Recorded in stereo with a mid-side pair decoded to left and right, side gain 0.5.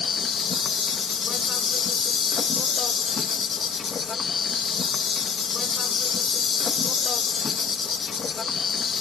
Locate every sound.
0.0 s an insect: 40° left